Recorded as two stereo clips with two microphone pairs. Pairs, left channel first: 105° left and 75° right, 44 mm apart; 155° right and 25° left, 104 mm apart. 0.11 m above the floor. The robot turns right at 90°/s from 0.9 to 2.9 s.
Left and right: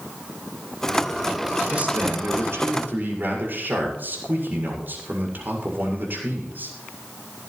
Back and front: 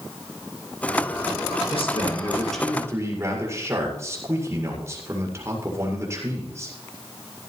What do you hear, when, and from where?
1.7 s a man speaking: 145° right, 7 m; by 6.7 s 35° right, 7 m